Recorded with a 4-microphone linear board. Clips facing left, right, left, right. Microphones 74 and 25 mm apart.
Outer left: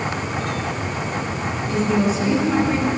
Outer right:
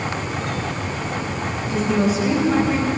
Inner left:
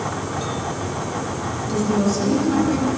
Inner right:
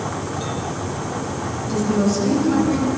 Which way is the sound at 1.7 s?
Centre (ahead or behind).